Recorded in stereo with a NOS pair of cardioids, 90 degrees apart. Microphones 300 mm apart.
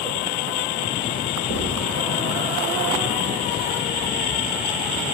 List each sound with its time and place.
1.5 s writing: 65° right, 4 m